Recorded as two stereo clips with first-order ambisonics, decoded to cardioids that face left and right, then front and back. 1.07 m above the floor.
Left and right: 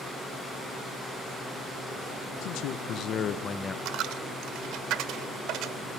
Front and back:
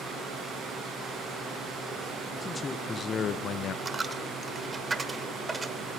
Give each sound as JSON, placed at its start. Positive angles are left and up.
{"t": 2.4, "sound": "a man speaking", "azimuth_deg": 75, "distance_m": 1.1}
{"t": 3.9, "sound": "a dropped coin", "azimuth_deg": -105, "distance_m": 1.0}